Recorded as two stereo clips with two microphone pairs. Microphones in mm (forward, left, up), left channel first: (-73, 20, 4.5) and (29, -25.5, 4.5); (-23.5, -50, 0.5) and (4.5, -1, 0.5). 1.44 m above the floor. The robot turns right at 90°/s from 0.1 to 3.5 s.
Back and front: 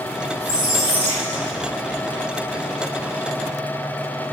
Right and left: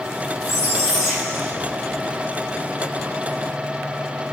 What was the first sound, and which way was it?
A squeak, 85° right.